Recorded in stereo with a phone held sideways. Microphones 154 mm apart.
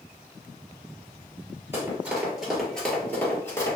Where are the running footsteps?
15° right (ahead or behind), 1.5 m; by 3.8 s 20° left (ahead or behind), 1.7 m.